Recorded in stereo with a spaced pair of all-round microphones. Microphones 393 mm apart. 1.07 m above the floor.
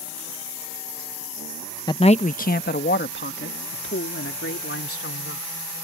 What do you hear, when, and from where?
1.9 s a man speaking: 10° left (ahead or behind); by 5.5 s 35° left (ahead or behind)